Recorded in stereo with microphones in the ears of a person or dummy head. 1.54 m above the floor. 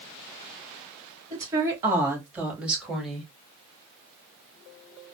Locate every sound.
1.3 s a woman speaking: 15° right (ahead or behind), 2.5 m; by 3.3 s centre (ahead or behind), 1.8 m